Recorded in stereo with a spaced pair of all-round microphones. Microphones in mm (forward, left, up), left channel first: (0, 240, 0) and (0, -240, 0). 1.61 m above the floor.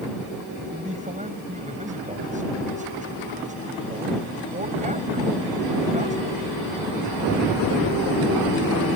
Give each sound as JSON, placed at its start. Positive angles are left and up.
{"t": 0.7, "sound": "a man speaking", "side_deg": -15}